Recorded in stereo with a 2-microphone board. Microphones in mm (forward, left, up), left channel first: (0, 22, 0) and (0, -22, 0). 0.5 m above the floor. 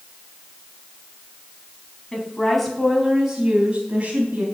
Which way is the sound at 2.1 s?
15° left (ahead or behind).